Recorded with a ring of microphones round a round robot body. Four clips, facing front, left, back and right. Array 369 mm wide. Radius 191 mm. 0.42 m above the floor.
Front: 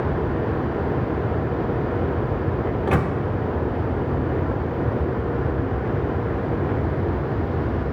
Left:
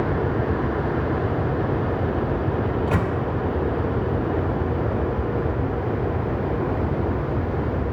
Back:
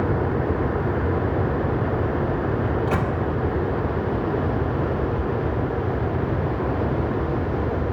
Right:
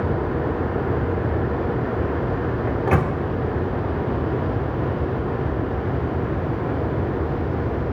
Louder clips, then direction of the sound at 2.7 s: Right 2 dB, front 1 dB; 60° right.